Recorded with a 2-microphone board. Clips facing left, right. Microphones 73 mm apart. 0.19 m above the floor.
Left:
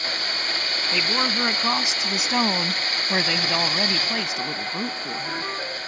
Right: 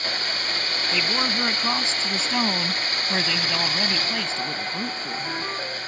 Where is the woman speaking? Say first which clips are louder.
Left 1 dB; 10° left (ahead or behind).